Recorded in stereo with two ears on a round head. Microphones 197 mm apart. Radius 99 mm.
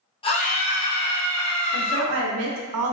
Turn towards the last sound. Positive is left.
turn(degrees=-70)  # may be behind; listen again after turning